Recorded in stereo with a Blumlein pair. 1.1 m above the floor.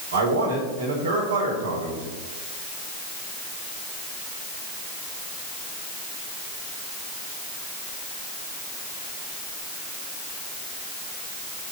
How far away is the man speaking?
About 4 m.